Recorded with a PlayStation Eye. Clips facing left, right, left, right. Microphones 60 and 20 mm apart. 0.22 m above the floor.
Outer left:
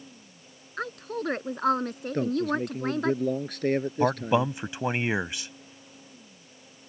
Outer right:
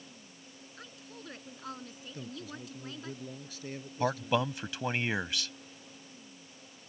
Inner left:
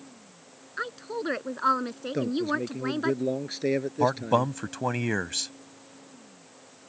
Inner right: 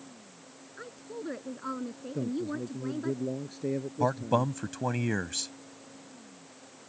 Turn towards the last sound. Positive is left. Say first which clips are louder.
# outer left 4 dB, inner left 3 dB
turn(degrees=20)  # may be behind; listen again after turning